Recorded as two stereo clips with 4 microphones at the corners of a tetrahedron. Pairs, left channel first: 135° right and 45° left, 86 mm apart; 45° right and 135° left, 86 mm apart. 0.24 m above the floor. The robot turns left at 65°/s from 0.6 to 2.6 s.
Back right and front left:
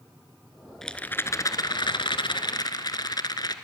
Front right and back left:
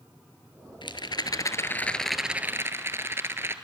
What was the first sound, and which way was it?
A rattle, 50° right.